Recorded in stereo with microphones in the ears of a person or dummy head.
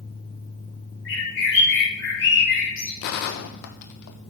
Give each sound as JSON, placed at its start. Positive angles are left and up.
{"t": 1.1, "sound": "a bird", "side_deg": 65, "distance_m": 4.0}
{"t": 3.0, "sound": "a gunshot", "side_deg": 60, "distance_m": 0.9}